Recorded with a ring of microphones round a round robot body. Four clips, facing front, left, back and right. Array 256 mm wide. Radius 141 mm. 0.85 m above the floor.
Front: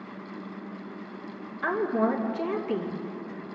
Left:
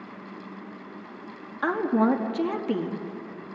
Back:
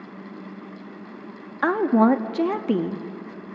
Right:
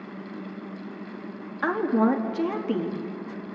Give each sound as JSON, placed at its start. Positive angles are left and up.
{"t": 1.6, "sound": "a woman speaking", "azimuth_deg": 175, "distance_m": 1.5}